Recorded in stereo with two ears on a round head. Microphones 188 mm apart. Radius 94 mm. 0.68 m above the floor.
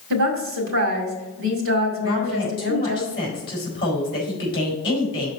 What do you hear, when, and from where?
0.1 s a woman speaking: 65° right (ahead or behind), 2 m
2.0 s a woman speaking: 25° left (ahead or behind), 4 m